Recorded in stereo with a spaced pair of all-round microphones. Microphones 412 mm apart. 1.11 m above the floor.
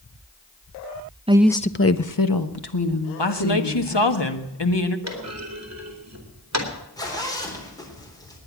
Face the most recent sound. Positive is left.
turn(degrees=10)  # may be behind; listen again after turning